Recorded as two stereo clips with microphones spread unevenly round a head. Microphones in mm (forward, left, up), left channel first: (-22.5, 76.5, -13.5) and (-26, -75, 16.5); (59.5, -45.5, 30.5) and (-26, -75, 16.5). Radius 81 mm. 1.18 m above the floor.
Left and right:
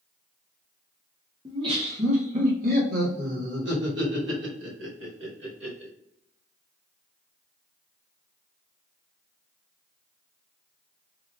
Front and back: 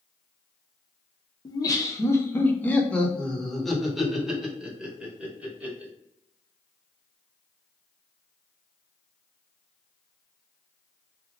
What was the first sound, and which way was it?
Laughter, 25° right.